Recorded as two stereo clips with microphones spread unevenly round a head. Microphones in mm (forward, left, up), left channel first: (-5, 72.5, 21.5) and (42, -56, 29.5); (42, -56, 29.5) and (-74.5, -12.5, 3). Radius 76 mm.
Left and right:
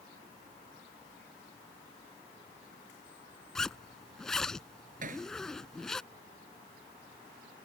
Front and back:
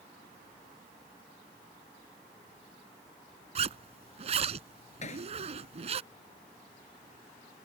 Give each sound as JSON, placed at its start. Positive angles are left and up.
{"t": 3.5, "sound": "a zipper", "azimuth_deg": -165}
{"t": 5.0, "sound": "hammering", "azimuth_deg": -45}